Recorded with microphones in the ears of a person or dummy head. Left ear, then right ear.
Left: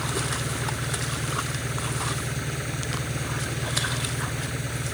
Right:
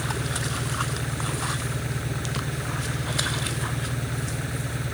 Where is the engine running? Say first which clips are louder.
Left 1 dB; 10° left (ahead or behind).